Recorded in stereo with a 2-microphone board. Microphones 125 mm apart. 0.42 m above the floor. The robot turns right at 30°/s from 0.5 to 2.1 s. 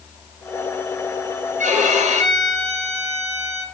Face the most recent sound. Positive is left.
turn(degrees=-65)  # may be behind; listen again after turning